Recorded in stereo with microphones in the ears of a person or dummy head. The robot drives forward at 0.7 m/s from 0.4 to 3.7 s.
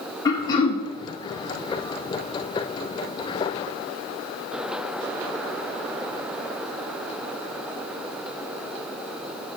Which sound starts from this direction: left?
Throat clearing, at 0.2 s.